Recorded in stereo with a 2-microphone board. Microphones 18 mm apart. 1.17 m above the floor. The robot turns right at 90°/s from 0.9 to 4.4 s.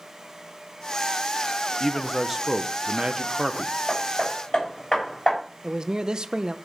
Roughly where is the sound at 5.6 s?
Right.